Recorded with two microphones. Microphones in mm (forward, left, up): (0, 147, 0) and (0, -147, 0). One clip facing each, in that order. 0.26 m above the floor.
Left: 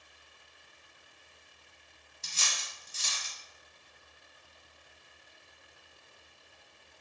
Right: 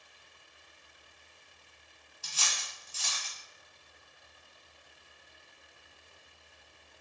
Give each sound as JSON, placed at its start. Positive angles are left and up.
{"t": 2.2, "sound": "cutlery clinking", "side_deg": 25, "distance_m": 0.8}